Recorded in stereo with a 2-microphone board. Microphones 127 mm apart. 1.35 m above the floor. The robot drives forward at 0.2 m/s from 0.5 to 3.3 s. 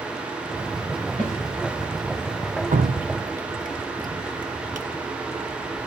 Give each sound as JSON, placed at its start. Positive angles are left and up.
{"t": 1.2, "sound": "a snare drum", "side_deg": -85, "distance_m": 7.0}
{"t": 2.7, "sound": "dripping", "side_deg": -80, "distance_m": 0.8}